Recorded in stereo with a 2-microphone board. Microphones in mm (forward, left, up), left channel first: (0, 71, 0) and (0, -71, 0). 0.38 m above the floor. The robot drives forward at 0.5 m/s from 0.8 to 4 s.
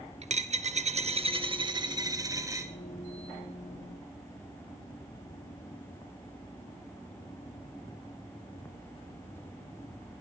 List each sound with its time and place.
0.2 s a dropped coin: 50° right (ahead or behind), 0.6 m; by 2.7 s 20° right (ahead or behind), 1.2 m